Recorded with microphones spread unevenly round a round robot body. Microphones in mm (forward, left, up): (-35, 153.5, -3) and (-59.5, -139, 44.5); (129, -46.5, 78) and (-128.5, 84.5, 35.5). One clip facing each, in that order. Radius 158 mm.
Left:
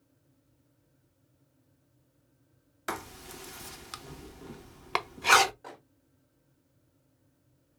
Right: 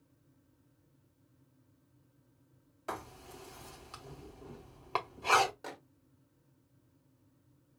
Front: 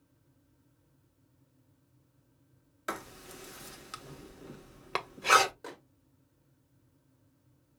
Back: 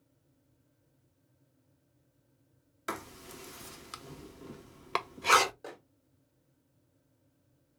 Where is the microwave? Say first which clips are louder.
Right 1 dB, even; 115° right, 1.0 m.